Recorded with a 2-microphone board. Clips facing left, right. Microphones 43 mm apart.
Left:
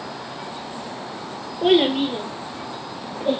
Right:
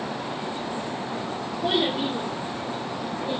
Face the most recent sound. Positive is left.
turn(degrees=60)  # may be behind; listen again after turning